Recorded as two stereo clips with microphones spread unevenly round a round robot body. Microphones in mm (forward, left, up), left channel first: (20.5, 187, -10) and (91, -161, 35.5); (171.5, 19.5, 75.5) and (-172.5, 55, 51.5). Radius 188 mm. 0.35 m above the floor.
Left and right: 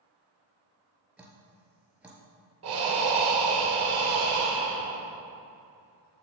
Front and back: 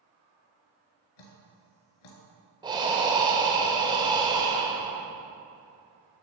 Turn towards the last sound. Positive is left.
turn(degrees=-115)